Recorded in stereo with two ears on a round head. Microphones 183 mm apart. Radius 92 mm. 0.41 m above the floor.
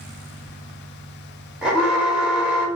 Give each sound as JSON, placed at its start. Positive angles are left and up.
{"t": 1.6, "sound": "an alarm", "side_deg": -5, "distance_m": 0.7}